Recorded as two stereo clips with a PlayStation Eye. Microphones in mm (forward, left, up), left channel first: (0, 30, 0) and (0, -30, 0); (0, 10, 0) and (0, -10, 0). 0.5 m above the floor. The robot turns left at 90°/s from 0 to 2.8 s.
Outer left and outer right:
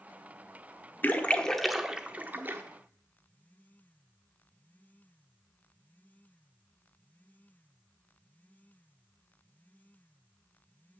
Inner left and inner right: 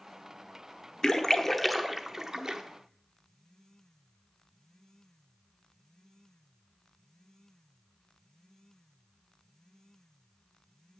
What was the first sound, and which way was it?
A splash, 30° left (ahead or behind).